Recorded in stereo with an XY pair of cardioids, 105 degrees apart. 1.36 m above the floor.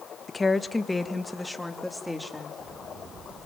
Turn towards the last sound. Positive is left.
turn(degrees=5)